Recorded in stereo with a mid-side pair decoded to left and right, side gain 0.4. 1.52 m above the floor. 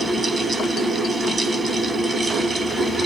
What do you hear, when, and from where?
0.0 s a fan: 35° right, 1.0 m